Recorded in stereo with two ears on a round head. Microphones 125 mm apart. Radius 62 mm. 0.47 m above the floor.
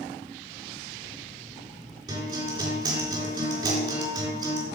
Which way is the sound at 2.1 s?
30° right (ahead or behind).